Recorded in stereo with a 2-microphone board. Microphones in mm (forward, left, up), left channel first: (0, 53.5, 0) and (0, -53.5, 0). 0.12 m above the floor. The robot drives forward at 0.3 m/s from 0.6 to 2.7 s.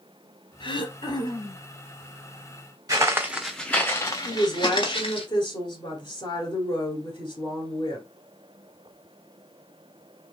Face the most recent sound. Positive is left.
turn(degrees=45)  # may be behind; listen again after turning